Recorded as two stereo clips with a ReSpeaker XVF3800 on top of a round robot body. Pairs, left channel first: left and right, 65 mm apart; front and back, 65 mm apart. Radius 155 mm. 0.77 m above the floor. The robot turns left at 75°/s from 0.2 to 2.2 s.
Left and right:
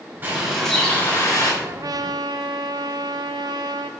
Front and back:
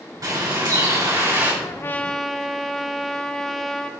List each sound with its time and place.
0.2 s a bird: 150° right, 5.5 m; by 1.5 s 110° left, 5.5 m
1.6 s a trumpet: 40° right, 0.5 m; by 3.9 s 85° right, 0.5 m